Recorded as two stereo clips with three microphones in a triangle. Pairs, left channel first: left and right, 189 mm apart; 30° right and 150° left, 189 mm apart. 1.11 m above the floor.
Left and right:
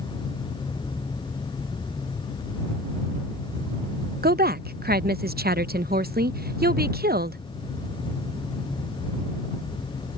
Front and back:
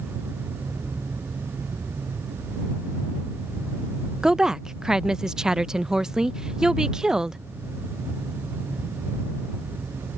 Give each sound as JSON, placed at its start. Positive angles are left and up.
{"t": 4.2, "sound": "a woman speaking", "azimuth_deg": -125}